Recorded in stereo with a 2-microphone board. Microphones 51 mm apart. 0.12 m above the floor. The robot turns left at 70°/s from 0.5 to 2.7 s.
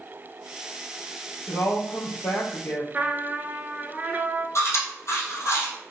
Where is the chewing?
70° left (ahead or behind), 2.5 m.